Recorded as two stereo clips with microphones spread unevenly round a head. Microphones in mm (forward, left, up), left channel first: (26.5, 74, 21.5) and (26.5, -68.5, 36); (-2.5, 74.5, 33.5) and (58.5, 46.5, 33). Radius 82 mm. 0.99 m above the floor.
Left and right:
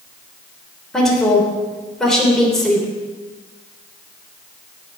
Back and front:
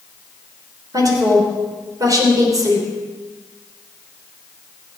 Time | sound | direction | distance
0.9 | a woman speaking | 5° left | 3 m